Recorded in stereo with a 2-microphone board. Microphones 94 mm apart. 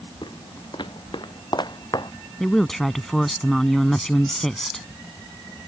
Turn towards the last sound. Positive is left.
turn(degrees=5)  # may be behind; listen again after turning